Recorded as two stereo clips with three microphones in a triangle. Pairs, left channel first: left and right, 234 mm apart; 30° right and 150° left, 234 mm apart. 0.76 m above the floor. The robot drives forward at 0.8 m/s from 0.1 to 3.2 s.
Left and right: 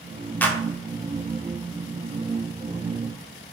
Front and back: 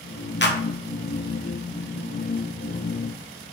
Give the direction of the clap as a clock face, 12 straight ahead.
12 o'clock.